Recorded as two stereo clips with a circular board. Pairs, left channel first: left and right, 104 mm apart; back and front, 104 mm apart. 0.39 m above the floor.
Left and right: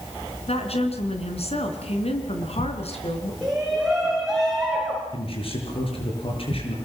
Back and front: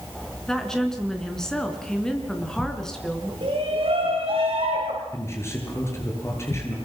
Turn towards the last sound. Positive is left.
turn(degrees=115)